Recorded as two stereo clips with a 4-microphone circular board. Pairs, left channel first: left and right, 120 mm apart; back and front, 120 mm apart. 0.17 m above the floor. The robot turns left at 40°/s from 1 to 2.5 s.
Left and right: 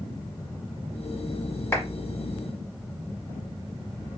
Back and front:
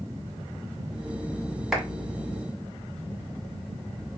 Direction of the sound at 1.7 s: 85° left.